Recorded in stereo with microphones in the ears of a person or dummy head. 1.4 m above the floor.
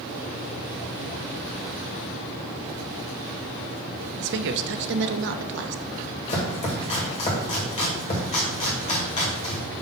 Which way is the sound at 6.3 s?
30° left (ahead or behind).